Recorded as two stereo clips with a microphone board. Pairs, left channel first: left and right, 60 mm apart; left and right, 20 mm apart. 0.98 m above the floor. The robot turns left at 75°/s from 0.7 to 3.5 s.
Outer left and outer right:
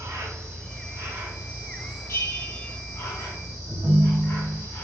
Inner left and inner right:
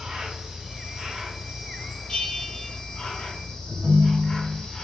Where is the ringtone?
65° right (ahead or behind), 1.3 m.